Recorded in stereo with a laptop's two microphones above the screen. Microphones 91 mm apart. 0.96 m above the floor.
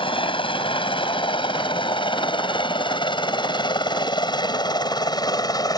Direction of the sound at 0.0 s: 75° left (ahead or behind).